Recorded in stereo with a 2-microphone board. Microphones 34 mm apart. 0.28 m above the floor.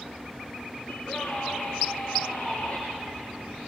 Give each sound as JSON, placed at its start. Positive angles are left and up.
{"t": 0.9, "sound": "a scream", "side_deg": 30, "distance_m": 3.0}